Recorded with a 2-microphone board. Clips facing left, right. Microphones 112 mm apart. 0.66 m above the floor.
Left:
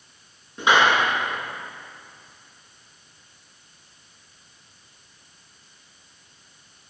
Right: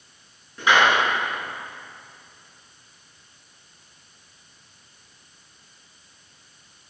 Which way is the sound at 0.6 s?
25° left (ahead or behind).